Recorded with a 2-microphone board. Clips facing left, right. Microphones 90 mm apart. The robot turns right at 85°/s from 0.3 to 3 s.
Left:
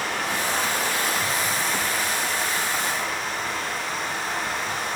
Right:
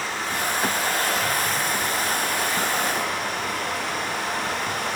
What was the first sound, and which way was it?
Running water, 70° left.